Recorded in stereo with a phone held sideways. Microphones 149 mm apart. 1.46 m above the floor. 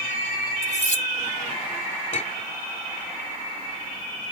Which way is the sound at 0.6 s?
55° left (ahead or behind).